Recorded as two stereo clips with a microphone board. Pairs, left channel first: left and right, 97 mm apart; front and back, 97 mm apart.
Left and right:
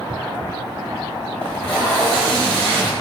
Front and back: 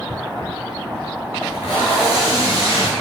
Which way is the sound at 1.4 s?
15° left.